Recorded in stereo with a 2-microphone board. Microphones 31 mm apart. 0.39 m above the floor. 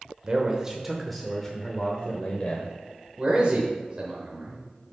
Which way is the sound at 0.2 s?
35° right (ahead or behind).